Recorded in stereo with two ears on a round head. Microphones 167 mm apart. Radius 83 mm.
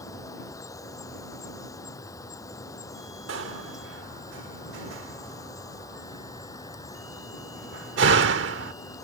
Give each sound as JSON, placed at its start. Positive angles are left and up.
{"t": 0.0, "sound": "an insect", "side_deg": 20}
{"t": 3.3, "sound": "a door slam", "side_deg": -70}